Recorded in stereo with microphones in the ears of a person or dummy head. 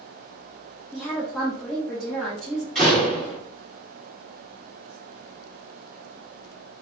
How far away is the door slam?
About 1.7 m.